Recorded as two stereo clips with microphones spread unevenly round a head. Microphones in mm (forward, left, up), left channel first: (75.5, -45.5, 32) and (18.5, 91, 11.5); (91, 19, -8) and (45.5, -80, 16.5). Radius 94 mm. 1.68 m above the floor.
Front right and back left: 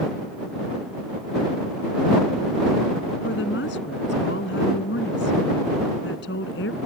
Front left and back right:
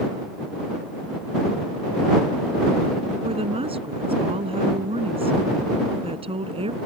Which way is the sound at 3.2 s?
85° right.